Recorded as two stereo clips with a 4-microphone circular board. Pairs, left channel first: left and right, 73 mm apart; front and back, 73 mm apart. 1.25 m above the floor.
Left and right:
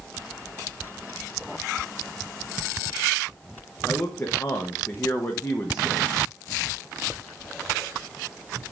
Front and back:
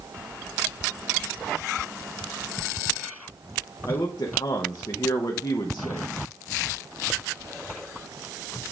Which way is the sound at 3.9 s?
30° left.